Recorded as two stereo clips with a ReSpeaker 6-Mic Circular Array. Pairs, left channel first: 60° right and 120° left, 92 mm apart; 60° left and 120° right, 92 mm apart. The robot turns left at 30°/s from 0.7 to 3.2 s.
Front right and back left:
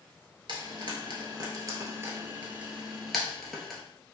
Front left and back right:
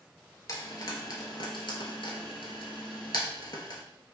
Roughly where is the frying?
Left.